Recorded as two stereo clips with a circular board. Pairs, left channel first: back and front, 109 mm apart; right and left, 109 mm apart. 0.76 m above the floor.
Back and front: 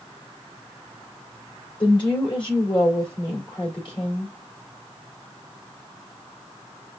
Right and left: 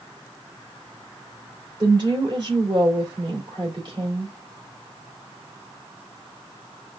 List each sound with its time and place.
1.8 s a woman speaking: 135° left, 2.5 m